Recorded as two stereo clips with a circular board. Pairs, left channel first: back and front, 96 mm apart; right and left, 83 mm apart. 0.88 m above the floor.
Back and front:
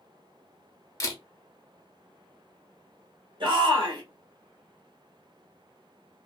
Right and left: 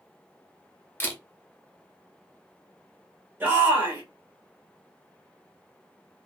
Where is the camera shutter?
145° right, 0.8 m.